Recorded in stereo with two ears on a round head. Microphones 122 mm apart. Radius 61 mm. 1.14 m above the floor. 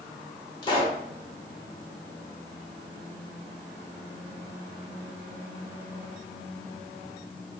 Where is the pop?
35° left (ahead or behind), 1.1 m.